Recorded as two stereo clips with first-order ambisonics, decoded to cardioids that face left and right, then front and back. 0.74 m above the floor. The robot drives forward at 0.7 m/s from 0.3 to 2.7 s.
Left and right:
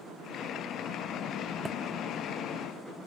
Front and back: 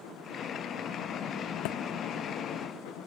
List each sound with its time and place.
1.6 s a thud: 5° right